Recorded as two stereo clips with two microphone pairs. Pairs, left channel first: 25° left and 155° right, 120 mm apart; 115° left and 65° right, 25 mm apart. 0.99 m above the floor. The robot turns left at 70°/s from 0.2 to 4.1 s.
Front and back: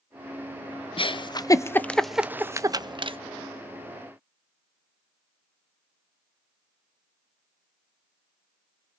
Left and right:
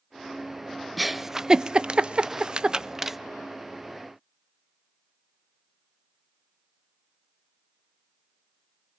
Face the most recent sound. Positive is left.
turn(degrees=160)